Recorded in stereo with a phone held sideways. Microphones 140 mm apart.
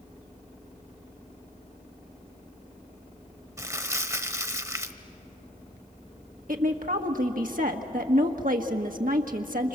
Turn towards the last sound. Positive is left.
turn(degrees=-80)